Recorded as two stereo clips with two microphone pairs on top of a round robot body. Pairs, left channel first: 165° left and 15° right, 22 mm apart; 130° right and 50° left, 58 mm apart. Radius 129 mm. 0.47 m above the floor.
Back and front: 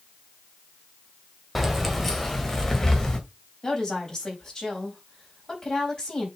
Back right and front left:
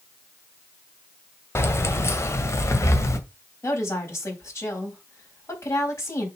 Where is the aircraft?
I don't hear an aircraft.